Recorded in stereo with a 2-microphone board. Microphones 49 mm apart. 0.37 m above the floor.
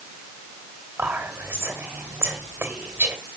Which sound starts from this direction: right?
Whispering, at 1.0 s.